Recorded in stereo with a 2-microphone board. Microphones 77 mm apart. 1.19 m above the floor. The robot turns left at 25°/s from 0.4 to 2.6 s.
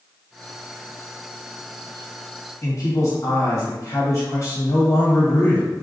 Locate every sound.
2.6 s a man speaking: 45° left (ahead or behind), 1.3 m